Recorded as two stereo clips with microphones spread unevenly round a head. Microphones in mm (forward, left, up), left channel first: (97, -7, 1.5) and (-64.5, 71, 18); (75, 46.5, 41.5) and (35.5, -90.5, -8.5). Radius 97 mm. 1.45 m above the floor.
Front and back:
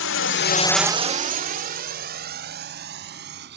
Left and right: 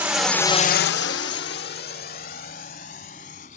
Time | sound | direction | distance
0.0 | a drone | 25° right | ?